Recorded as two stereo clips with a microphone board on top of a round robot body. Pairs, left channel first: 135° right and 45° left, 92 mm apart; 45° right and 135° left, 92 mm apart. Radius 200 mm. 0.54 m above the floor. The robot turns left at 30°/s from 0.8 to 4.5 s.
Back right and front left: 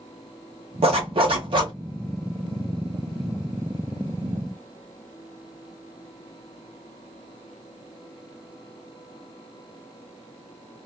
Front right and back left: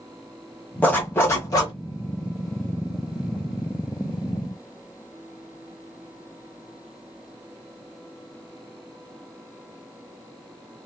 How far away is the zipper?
About 0.6 m.